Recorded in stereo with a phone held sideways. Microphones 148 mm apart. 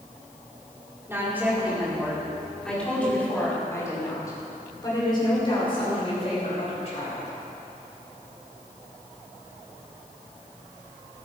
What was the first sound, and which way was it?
A woman speaking, 15° right (ahead or behind).